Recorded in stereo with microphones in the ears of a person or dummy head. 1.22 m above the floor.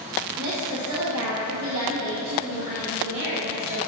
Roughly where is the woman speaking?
Right.